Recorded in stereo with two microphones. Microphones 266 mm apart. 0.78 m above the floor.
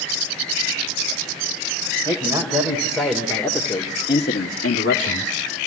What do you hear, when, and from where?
2.0 s a man speaking: 15° right (ahead or behind), 3.5 m; by 5.3 s 70° left (ahead or behind), 2.0 m